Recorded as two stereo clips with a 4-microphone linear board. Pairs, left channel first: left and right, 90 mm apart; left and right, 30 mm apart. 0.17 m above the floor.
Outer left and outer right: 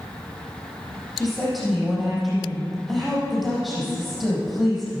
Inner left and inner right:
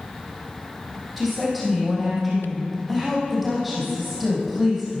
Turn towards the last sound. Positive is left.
turn(degrees=-5)  # may be behind; listen again after turning